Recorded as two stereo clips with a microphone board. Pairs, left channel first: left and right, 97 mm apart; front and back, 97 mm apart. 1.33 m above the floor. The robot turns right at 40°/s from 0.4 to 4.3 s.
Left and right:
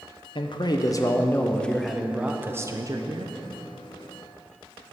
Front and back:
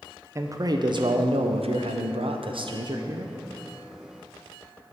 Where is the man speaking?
120° left, 0.5 m; by 3.3 s 125° right, 0.5 m.